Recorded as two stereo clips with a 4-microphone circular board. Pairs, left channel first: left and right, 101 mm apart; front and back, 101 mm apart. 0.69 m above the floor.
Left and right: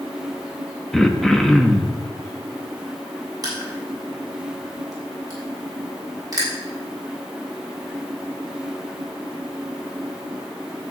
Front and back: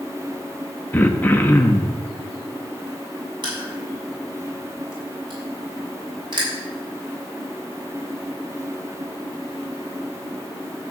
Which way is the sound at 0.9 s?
10° left.